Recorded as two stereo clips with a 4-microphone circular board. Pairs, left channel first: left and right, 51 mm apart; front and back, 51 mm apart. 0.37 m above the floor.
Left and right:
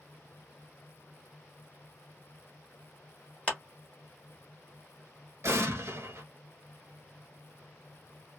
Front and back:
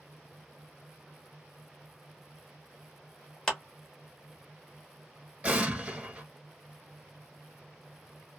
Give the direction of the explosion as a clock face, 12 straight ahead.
4 o'clock.